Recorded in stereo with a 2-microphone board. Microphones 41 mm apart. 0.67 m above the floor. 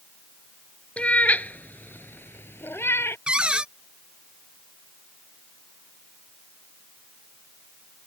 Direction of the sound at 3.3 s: 25° right (ahead or behind).